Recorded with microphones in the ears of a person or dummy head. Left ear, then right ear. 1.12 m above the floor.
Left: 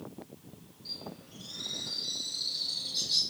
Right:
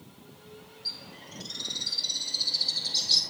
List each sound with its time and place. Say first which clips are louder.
0.8 s a bird: right 5 dB; 35° right (ahead or behind), 1.5 m